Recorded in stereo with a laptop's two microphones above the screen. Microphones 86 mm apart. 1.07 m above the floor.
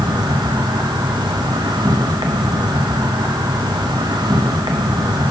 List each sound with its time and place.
0.0 s an insect: 60° right (ahead or behind), 0.8 m